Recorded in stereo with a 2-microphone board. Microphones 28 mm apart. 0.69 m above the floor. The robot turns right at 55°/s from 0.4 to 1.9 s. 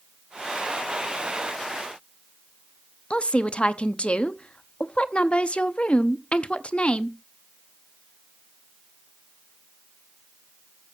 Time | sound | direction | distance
3.1 | a woman speaking | 40° left (ahead or behind) | 0.7 m